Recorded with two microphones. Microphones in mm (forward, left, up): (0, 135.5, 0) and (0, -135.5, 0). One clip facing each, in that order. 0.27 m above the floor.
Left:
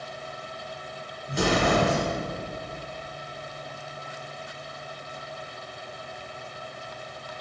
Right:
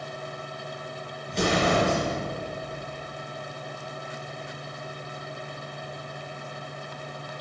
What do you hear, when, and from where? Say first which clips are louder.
1.3 s an explosion: left 1 dB; 5° left (ahead or behind), 4 m